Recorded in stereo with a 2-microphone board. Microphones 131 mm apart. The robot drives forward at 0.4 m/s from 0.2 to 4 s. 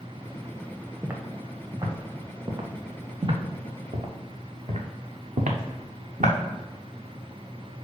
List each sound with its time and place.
1.0 s footsteps: 20° right (ahead or behind), 1.4 m; by 6.4 s 80° right, 1.6 m